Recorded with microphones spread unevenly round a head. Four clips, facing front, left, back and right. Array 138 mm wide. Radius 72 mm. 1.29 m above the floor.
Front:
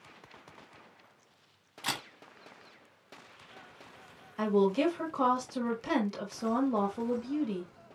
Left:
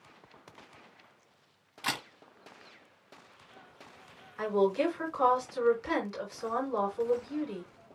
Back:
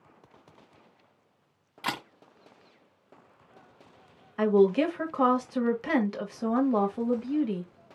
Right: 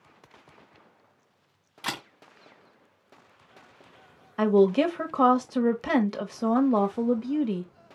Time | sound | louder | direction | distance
1.8 | a camera shutter | right 1 dB, back 4 dB | 165° right | 1.5 m
4.4 | a woman speaking | right 7 dB, back 5 dB | 100° right | 1.1 m